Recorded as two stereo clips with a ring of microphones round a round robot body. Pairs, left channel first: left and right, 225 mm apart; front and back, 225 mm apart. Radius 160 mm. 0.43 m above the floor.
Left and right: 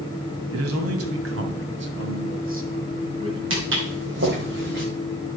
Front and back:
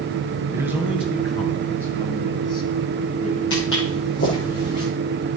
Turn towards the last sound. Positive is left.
turn(degrees=-55)